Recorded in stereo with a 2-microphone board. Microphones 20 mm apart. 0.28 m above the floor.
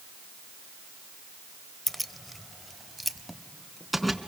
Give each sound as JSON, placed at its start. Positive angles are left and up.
{"t": 1.9, "sound": "keys jangling", "side_deg": 10, "distance_m": 0.6}